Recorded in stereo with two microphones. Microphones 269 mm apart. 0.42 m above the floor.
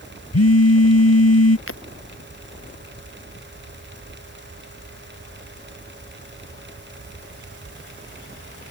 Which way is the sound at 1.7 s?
55° left (ahead or behind).